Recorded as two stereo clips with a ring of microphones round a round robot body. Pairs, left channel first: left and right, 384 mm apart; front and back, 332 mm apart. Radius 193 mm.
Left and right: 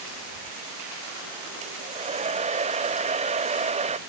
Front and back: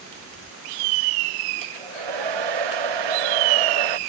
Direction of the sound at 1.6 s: 165° right.